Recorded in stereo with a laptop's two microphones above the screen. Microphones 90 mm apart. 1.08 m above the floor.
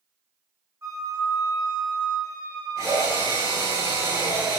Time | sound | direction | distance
0.8 | a flute | 35° right (ahead or behind) | 2.5 m
2.8 | a drill | 35° right (ahead or behind) | 3 m